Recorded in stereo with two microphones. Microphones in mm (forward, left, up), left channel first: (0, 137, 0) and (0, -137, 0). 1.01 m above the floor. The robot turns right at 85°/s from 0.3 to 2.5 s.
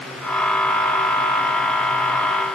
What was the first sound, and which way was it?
Only background noise.